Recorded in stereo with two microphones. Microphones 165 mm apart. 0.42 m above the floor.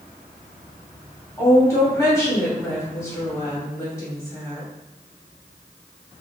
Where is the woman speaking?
20° left (ahead or behind), 2 m.